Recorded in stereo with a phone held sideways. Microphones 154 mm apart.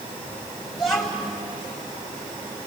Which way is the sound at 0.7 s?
Centre (ahead or behind).